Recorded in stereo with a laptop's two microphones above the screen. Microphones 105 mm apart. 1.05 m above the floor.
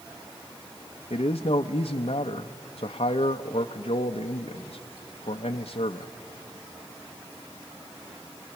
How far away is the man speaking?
About 0.6 m.